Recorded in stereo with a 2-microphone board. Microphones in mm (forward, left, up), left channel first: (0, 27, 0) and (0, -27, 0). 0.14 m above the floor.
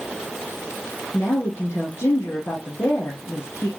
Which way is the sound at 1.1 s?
45° left (ahead or behind).